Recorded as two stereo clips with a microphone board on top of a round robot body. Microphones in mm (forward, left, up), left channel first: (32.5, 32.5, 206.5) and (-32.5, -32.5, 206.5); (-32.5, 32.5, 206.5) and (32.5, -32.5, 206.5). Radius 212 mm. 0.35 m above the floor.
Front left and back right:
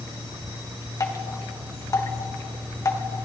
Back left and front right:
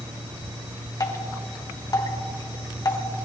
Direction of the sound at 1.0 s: 95° left.